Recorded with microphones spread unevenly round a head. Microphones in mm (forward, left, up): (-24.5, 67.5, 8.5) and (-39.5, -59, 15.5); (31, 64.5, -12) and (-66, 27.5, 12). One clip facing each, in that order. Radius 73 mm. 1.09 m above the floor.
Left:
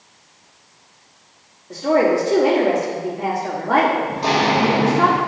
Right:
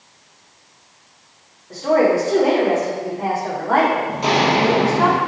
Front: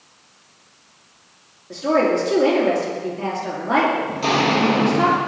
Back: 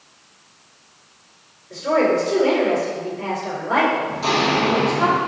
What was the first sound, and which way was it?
A woman speaking, 10° left.